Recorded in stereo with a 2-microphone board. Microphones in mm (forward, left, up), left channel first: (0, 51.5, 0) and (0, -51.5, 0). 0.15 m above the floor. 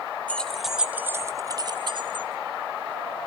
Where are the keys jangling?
15° left (ahead or behind), 1.0 m; by 2.3 s 55° right (ahead or behind), 1.3 m.